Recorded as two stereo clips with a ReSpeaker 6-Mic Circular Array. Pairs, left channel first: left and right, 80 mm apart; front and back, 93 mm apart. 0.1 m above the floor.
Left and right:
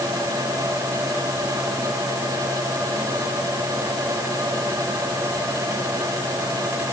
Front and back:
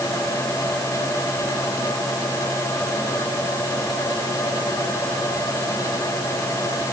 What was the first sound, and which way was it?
Only background noise.